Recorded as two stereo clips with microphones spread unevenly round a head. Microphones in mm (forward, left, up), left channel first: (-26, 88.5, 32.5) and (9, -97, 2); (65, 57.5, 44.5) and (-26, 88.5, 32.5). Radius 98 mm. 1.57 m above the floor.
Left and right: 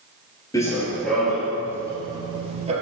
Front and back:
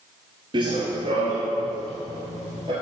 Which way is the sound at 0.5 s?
150° left.